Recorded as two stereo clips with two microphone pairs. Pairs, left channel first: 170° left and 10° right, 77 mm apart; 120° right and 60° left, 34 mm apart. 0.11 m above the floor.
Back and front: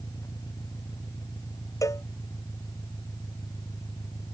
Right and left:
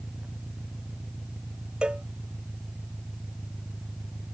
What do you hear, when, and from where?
0.0 s an engine running: 130° left
1.8 s a cowbell: 120° left